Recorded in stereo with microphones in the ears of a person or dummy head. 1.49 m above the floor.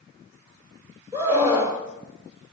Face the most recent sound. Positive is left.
turn(degrees=-20)  # may be behind; listen again after turning